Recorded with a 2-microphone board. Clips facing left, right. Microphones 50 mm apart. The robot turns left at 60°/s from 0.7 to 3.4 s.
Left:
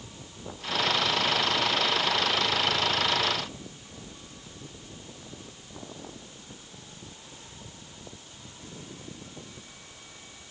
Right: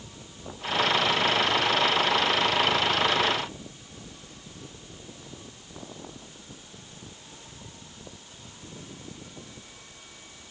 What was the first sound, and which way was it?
Only background noise.